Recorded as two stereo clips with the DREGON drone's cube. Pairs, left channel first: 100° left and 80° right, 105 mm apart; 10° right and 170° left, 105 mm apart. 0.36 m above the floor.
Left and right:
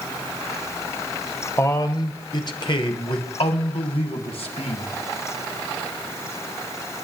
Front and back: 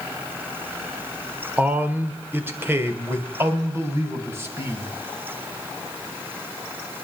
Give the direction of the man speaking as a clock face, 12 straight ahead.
8 o'clock.